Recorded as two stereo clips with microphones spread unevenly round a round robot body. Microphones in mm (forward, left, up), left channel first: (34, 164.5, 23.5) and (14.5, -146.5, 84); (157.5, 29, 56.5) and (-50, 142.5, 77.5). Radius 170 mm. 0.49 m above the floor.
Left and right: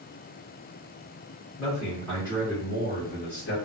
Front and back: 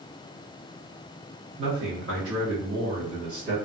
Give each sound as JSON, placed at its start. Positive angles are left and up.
{"t": 1.6, "sound": "a man speaking", "azimuth_deg": 175, "distance_m": 1.3}